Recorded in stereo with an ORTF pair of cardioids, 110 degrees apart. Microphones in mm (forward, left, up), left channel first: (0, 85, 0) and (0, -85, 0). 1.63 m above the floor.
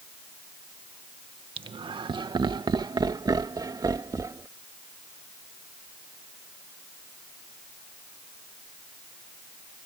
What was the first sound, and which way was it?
Laughter, 30° right.